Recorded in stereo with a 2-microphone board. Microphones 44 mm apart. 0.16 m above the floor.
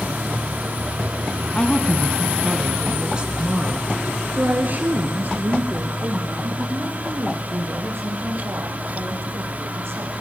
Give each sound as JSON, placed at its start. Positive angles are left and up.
{"t": 1.6, "sound": "a woman speaking", "side_deg": 30, "distance_m": 1.3}